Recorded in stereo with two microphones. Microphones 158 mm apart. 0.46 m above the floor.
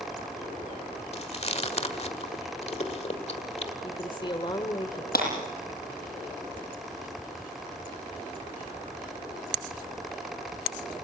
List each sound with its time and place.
1.1 s chewing: 45° left (ahead or behind), 1.6 m
3.8 s a woman speaking: 35° left (ahead or behind), 1.2 m
5.1 s breaking glass: 85° left, 9 m